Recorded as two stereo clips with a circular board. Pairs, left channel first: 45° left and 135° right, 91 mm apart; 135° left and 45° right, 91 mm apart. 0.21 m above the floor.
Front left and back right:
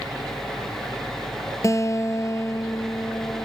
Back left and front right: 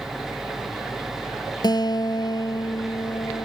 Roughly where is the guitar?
Left.